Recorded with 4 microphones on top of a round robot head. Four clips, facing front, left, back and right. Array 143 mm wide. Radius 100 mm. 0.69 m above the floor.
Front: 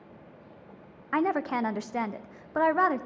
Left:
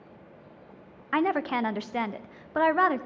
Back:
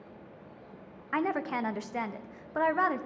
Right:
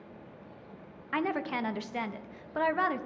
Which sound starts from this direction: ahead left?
A woman speaking, at 1.1 s.